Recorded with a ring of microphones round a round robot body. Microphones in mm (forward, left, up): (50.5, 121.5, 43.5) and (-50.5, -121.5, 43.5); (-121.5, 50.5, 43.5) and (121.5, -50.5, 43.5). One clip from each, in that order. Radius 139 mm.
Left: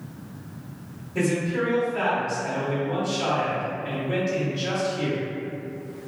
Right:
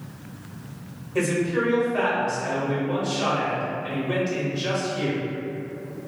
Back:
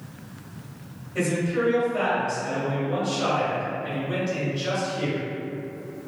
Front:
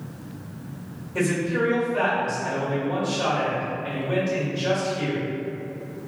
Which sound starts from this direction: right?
A man speaking, at 1.1 s.